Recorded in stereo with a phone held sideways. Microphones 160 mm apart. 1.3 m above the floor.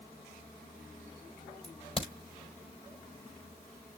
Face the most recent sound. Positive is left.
turn(degrees=35)  # may be behind; listen again after turning